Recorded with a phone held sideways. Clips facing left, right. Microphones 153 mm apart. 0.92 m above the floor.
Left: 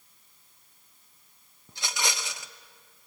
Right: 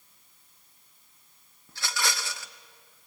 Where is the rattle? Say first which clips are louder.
Right 1 dB; 20° left (ahead or behind), 0.8 m.